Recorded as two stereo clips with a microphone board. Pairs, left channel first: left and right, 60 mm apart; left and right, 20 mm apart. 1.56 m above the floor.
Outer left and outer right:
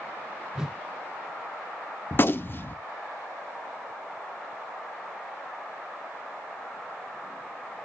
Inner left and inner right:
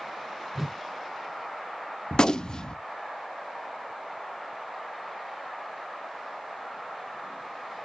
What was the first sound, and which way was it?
A whoosh, 10° right (ahead or behind).